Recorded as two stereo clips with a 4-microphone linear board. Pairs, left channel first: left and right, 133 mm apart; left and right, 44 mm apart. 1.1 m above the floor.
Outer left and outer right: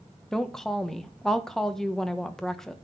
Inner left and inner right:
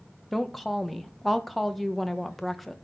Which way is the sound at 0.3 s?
5° left (ahead or behind).